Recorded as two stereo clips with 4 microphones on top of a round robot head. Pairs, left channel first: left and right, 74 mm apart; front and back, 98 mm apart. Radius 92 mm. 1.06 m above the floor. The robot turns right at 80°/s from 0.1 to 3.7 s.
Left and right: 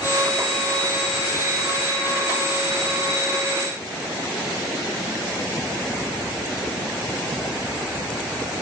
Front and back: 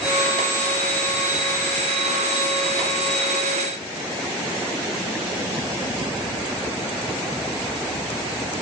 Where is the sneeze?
No sneeze in this recording.